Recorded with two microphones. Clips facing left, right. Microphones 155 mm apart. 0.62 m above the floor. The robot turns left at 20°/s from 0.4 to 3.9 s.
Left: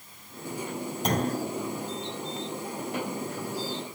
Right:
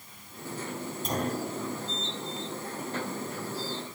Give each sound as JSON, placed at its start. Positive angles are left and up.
{"t": 1.1, "sound": "a clunk", "side_deg": 80, "distance_m": 4.0}